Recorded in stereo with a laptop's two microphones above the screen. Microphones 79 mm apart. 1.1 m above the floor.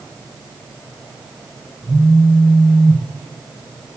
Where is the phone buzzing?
10° right (ahead or behind), 1.3 m.